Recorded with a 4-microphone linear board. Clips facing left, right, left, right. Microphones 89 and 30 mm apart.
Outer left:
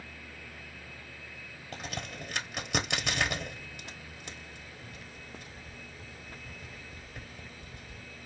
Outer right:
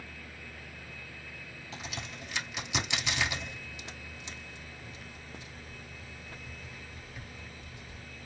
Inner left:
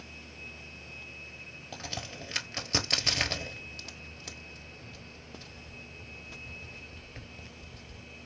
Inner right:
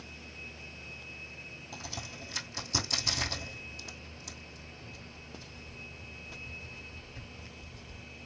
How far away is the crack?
About 1.1 m.